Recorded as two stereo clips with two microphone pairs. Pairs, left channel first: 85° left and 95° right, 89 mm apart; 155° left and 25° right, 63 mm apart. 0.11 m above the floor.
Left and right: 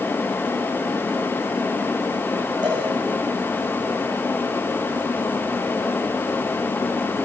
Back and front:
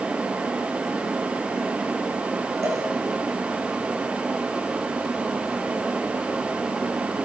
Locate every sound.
2.6 s a cowbell: 60° right, 7 m